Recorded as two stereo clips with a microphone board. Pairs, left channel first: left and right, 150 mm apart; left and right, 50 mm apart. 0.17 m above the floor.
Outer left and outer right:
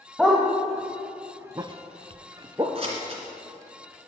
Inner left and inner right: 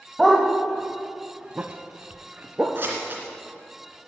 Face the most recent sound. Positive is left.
turn(degrees=-40)  # may be behind; listen again after turning